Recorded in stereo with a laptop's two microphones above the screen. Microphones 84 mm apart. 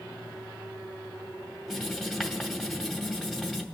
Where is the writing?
5° right (ahead or behind), 2 m.